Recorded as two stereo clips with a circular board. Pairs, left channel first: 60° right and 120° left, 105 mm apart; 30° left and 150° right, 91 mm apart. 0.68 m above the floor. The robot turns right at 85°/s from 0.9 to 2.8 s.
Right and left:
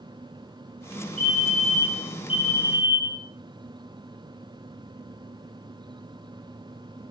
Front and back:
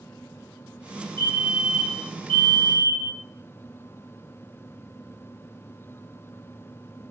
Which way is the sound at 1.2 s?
140° right.